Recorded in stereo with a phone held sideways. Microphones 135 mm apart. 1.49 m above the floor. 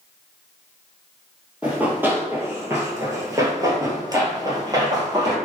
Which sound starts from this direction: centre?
Running footsteps, at 1.6 s.